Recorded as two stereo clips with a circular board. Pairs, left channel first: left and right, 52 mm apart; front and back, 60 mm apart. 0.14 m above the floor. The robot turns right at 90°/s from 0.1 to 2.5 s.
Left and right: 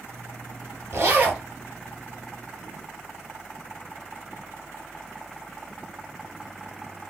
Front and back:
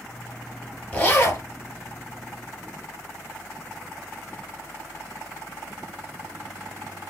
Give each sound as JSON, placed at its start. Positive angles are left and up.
{"t": 0.9, "sound": "a zipper", "azimuth_deg": -70, "distance_m": 2.0}